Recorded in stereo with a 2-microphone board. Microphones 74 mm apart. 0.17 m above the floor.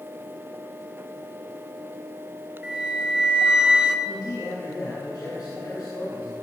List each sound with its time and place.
2.6 s a flute: 15° right (ahead or behind), 1.0 m
4.0 s a man speaking: 65° left (ahead or behind), 4 m